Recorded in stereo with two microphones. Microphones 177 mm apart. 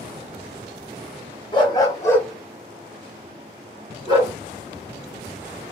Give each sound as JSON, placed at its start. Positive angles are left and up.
{"t": 1.5, "sound": "a dog barking", "side_deg": 25, "distance_m": 1.2}